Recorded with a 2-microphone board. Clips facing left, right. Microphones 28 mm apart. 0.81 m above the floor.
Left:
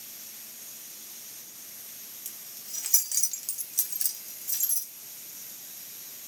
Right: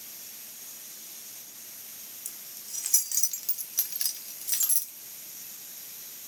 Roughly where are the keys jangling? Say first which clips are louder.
Even; left.